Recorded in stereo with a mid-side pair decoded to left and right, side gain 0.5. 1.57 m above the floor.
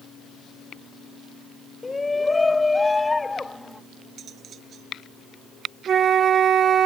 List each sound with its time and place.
1.8 s a shout: 20° left
4.2 s cutlery clinking: 55° right
5.9 s a flute: 50° right